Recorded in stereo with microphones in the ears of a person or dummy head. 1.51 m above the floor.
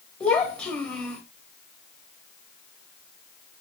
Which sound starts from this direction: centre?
A child speaking, at 0.2 s.